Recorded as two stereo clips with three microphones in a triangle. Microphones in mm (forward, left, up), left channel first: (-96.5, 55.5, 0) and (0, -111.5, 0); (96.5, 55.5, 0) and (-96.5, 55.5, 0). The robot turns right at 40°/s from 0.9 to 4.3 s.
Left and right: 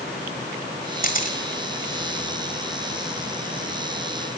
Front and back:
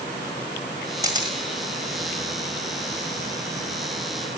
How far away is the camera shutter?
About 1.7 m.